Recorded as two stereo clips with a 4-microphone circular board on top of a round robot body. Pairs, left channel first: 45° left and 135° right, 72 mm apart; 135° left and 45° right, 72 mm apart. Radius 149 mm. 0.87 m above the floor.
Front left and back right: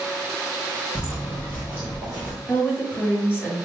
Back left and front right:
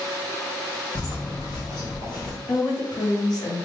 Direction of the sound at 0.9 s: 115° left.